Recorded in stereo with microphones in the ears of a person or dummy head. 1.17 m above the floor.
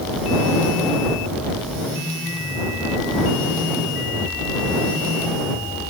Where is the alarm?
I don't hear an alarm.